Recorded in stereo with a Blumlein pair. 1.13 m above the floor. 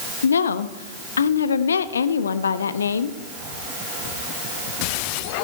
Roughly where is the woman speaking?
Left.